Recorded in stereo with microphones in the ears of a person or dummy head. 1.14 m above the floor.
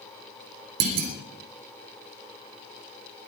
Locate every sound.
0.8 s a clunk: 90° right, 3 m